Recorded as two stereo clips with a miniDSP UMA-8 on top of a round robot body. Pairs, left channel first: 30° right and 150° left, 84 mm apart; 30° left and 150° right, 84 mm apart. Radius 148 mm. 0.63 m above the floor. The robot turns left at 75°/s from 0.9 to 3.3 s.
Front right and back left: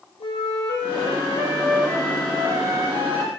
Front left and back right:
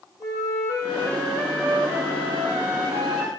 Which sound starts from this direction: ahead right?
A flute, at 0.2 s.